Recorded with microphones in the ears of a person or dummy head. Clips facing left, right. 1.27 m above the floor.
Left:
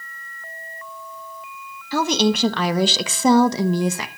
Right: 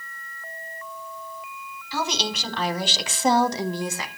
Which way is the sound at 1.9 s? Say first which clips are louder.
Left 10 dB; 45° left (ahead or behind).